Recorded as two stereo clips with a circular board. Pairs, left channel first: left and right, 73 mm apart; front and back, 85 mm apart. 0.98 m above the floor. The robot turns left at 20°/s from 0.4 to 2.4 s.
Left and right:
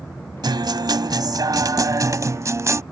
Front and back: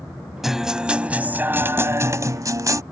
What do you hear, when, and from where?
0.4 s a guitar: 95° right; by 2.8 s 135° right